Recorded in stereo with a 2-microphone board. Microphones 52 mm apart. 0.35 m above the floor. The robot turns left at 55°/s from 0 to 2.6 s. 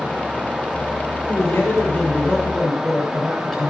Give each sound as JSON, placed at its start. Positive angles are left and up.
{"t": 1.3, "sound": "a man speaking", "azimuth_deg": 80, "distance_m": 7.5}